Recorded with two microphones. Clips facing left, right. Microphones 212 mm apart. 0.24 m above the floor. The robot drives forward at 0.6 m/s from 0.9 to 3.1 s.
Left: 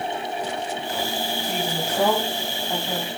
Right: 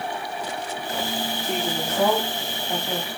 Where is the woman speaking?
5° left (ahead or behind), 9.5 m.